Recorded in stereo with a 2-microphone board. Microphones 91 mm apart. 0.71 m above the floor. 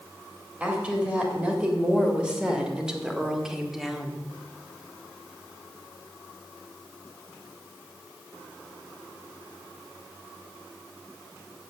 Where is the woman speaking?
15° right (ahead or behind), 3.5 m; by 4.2 s centre (ahead or behind), 1.5 m.